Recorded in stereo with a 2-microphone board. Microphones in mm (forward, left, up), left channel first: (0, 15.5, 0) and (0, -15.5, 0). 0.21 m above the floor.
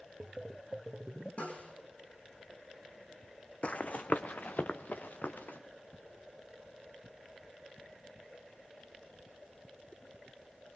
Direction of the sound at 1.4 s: 45° left (ahead or behind).